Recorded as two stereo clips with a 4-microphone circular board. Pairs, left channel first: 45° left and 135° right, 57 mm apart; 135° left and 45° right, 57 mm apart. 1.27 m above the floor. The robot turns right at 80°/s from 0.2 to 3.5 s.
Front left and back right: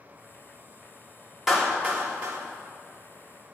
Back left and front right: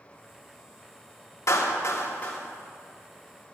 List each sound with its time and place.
1.5 s a clap: 145° left, 3 m; by 2.4 s 145° right, 3 m